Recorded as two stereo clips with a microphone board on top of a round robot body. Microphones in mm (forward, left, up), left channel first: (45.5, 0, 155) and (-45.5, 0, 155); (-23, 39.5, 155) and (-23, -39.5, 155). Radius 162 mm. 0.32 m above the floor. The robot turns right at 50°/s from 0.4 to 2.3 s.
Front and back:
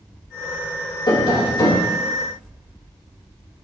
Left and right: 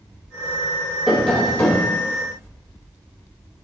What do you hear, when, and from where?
1.1 s tapping: 5° right, 2.5 m; by 2.0 s 45° left, 2.5 m